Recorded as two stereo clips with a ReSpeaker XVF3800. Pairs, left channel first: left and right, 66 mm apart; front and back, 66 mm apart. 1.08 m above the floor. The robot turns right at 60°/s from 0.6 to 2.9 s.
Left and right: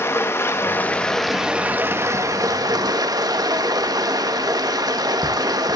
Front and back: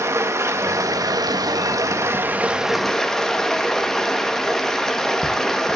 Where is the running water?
140° left, 1.4 m; by 5.8 s 80° right, 1.4 m.